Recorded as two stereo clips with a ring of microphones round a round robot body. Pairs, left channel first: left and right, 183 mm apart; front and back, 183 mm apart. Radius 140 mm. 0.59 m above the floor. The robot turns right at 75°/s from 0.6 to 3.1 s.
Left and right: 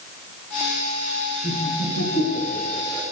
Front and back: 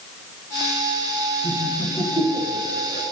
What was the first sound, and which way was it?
Laughter, 50° left.